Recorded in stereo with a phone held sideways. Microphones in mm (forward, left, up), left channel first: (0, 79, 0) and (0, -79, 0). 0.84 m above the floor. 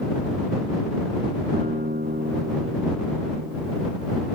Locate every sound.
1.5 s a guitar: 75° right (ahead or behind)